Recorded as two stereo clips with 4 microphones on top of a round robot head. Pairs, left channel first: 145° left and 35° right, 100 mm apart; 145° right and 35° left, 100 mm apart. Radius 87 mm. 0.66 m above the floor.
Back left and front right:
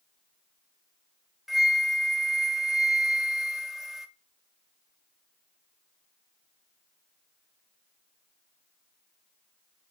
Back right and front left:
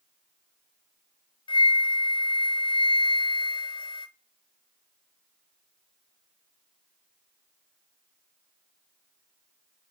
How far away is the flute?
About 0.7 m.